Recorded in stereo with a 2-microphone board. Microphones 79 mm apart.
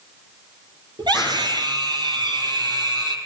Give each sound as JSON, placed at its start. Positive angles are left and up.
{"t": 1.0, "sound": "a scream", "side_deg": -70, "distance_m": 4.5}